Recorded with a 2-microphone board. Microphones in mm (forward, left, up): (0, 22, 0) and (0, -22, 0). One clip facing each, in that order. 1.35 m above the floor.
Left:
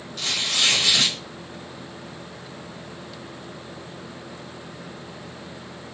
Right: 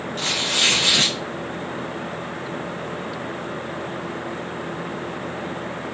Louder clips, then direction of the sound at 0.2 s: Right 2 dB; 40° right (ahead or behind).